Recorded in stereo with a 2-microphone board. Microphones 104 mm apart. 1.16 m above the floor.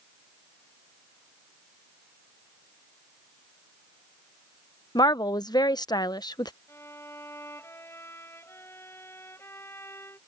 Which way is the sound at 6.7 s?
25° left (ahead or behind).